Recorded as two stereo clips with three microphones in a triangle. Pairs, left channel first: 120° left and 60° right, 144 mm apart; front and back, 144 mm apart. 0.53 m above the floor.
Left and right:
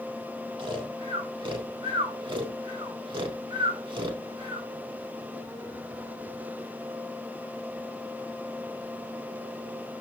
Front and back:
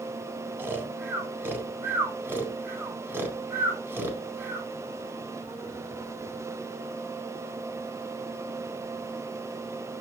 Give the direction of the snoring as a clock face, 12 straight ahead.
4 o'clock.